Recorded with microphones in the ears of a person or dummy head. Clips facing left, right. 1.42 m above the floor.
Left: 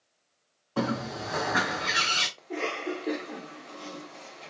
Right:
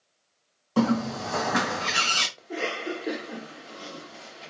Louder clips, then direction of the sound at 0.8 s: Right 6 dB; 55° right (ahead or behind).